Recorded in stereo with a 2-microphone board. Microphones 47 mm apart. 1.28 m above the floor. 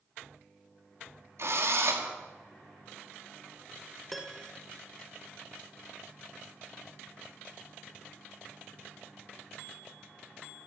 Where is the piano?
Centre (ahead or behind), 1.2 m.